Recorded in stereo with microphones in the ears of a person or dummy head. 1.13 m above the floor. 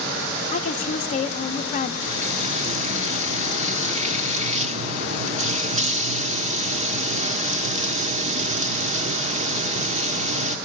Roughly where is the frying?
Right.